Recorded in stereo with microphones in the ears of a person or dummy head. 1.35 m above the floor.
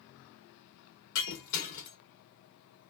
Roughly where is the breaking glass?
Left.